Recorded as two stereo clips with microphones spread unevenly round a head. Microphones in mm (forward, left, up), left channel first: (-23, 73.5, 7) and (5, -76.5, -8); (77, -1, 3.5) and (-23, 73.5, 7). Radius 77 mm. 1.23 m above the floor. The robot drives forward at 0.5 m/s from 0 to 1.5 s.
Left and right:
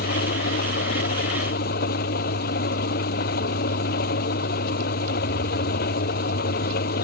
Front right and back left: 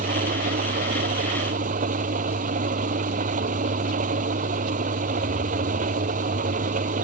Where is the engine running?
125° left; by 7.0 s 130° left.